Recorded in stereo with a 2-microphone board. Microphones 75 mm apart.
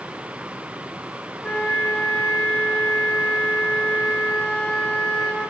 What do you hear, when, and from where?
1.4 s a flute: 15° left (ahead or behind), 1.8 m